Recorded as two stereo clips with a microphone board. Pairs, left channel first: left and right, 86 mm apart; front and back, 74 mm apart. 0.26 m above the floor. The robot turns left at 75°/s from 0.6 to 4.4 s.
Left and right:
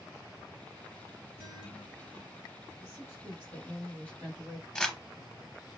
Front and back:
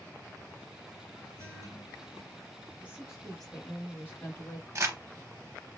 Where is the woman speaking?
125° left, 1.2 m; by 4.7 s 5° left, 1.2 m.